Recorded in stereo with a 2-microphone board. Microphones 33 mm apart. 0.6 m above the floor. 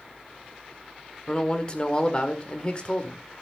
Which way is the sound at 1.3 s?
30° left (ahead or behind).